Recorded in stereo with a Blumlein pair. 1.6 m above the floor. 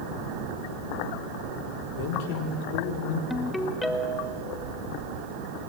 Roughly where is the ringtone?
Ahead.